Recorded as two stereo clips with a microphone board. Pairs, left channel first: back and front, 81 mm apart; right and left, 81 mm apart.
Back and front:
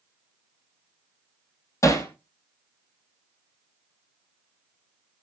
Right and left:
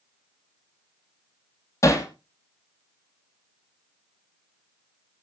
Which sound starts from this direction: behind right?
Hammering, at 1.8 s.